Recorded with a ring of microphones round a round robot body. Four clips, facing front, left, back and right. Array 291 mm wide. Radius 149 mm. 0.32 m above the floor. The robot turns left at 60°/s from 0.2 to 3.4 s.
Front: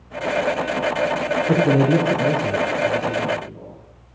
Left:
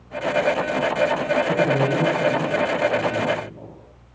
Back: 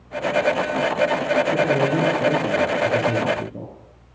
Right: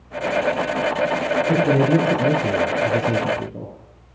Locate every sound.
1.5 s a man speaking: 10° right, 5 m; by 3.7 s 125° right, 5 m